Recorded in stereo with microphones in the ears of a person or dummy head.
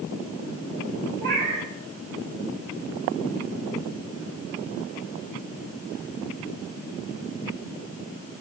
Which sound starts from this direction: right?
A cat meowing, at 1.2 s.